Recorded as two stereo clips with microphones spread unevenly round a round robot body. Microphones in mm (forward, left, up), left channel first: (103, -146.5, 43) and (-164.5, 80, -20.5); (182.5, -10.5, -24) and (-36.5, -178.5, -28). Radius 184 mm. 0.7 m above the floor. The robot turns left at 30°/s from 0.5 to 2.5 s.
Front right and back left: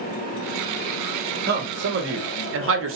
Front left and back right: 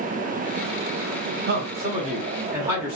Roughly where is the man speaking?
Behind.